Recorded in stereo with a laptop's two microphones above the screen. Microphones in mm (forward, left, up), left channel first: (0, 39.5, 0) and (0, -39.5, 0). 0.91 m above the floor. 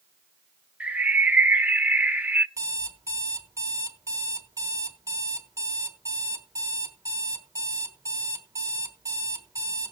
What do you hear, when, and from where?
0.8 s a bird: 20° right (ahead or behind), 0.6 m
2.6 s an alarm clock: 40° right (ahead or behind), 1.2 m